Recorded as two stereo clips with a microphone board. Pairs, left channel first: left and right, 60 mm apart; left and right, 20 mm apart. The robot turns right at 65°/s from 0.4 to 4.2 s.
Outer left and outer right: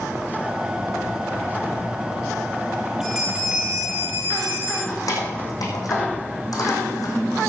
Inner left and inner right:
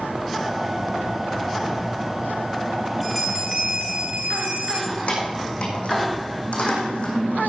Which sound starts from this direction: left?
Keys jangling, at 4.9 s.